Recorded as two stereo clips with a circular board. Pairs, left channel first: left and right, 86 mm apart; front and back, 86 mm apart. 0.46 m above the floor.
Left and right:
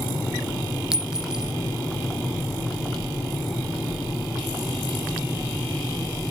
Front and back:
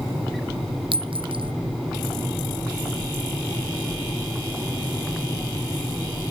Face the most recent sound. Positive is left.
turn(degrees=-175)